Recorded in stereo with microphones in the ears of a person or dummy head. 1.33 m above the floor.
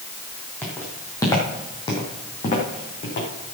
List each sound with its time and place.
0.6 s footsteps: 5° left (ahead or behind), 2.5 m; by 3.3 s 40° left (ahead or behind), 3 m